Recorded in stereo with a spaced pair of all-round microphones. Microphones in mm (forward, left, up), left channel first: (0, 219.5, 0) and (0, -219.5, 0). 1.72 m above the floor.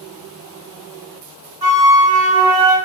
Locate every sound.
1.6 s a flute: 60° right (ahead or behind), 0.7 m